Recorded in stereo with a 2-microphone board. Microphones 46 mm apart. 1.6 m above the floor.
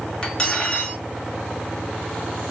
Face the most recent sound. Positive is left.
turn(degrees=20)  # may be behind; listen again after turning